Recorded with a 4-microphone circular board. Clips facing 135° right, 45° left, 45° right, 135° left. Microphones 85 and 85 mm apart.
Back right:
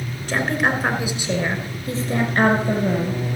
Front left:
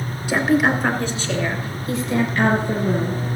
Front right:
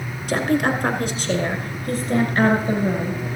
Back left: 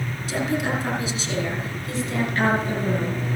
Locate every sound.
0.3 s a woman speaking: 30° right, 2.5 m; by 3.2 s 105° right, 3.5 m